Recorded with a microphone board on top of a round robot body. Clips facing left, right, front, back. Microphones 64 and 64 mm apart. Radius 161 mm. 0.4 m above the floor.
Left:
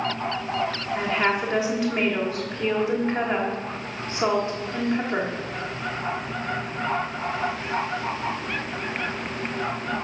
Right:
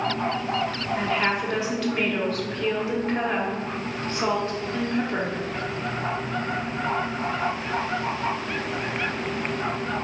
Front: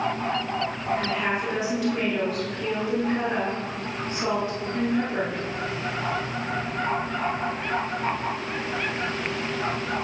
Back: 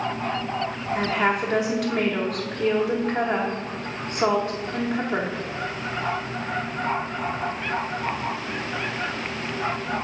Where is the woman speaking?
165° left, 1.7 m.